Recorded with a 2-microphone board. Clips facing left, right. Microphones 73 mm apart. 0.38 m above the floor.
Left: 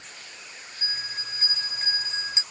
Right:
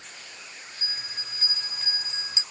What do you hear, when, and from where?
0.8 s a bell: 40° left (ahead or behind), 1.1 m